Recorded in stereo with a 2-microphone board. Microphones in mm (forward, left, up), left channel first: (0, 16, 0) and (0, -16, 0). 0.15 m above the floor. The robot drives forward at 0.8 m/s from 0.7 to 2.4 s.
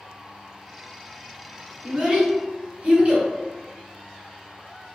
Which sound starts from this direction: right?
A child speaking, at 1.8 s.